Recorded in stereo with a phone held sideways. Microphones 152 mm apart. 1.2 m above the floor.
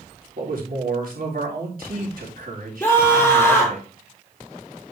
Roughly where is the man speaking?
Right.